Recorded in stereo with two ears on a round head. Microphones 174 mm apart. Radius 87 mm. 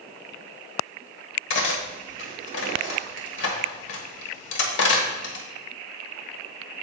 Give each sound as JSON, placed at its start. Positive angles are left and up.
{"t": 1.5, "sound": "cutlery clinking", "side_deg": 70, "distance_m": 1.2}